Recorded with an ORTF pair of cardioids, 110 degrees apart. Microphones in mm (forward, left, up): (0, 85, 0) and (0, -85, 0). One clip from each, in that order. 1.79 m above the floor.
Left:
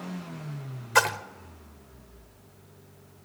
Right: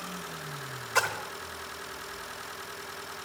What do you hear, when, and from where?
0.9 s a splash: 30° left, 1.2 m